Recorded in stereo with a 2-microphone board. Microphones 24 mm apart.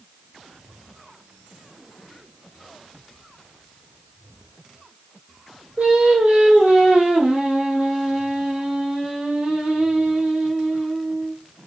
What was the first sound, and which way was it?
Singing, 65° right (ahead or behind).